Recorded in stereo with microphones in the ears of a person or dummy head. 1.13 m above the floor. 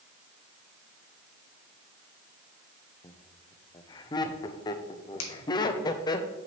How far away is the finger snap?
About 2 m.